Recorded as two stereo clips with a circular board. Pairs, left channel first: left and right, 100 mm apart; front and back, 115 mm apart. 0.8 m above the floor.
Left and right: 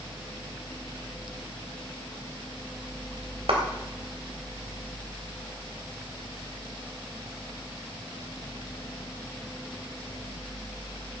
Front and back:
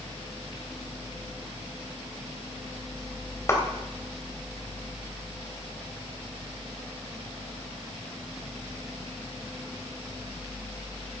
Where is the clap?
65° right, 2.5 m.